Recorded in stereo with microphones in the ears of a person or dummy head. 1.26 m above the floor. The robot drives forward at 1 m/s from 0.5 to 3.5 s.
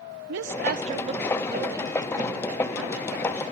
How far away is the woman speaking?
About 0.7 m.